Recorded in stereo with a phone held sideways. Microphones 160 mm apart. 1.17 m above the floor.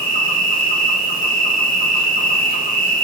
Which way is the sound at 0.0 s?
60° left (ahead or behind).